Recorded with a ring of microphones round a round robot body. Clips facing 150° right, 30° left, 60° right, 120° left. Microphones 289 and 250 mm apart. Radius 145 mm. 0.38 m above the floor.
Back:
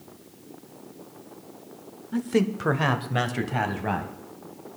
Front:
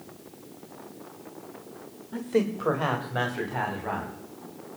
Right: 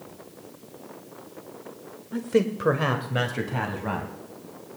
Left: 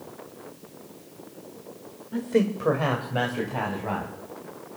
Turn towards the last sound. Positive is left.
turn(degrees=-125)